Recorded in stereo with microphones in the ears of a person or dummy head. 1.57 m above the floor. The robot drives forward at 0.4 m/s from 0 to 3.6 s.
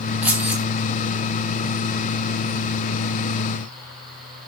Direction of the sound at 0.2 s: 10° right (ahead or behind).